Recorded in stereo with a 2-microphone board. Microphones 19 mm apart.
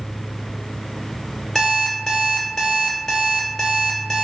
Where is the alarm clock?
15° left (ahead or behind), 1.4 m.